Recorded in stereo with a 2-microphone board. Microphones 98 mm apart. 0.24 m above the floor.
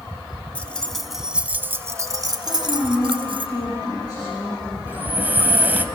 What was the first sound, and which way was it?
Keys jangling, 15° left (ahead or behind).